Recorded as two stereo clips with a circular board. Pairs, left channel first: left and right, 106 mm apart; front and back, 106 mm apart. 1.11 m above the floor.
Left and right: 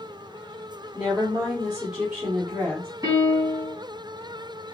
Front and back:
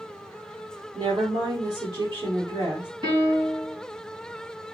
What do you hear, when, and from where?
0.9 s a woman speaking: 160° right, 2.5 m
3.0 s a piano: 145° right, 3 m